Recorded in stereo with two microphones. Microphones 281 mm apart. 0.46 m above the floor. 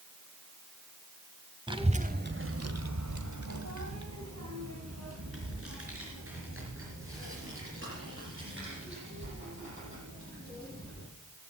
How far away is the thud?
I don't hear a thud.